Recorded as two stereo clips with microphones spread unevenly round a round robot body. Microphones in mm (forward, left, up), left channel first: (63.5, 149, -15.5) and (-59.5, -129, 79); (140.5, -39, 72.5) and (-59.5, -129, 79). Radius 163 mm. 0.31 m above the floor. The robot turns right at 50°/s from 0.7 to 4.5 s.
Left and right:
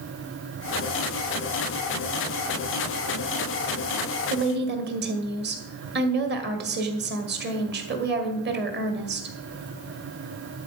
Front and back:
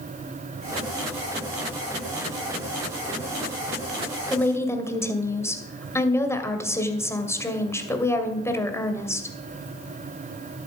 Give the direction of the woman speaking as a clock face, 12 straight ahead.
2 o'clock.